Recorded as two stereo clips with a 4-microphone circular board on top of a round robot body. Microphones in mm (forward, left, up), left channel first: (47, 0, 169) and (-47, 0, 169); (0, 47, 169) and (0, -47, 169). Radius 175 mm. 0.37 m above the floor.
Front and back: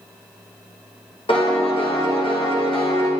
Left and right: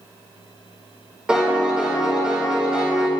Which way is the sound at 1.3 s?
10° right.